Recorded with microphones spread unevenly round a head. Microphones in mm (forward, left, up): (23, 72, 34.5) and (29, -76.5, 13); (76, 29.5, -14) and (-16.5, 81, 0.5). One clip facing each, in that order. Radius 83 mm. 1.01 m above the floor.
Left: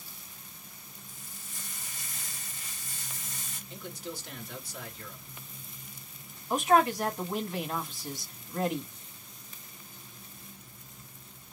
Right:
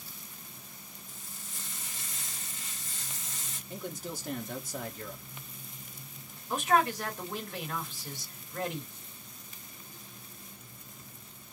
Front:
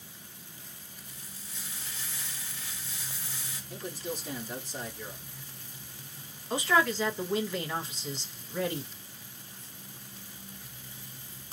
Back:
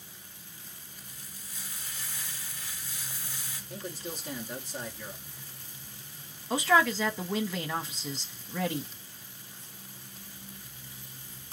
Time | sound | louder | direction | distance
1.1 | frying | right 1 dB, front 1 dB | 100° right | 2 m
3.7 | a man speaking | right 2 dB, front 2 dB | 110° right | 1.2 m
6.5 | a man speaking | left 3 dB, back 2 dB | 170° left | 1.1 m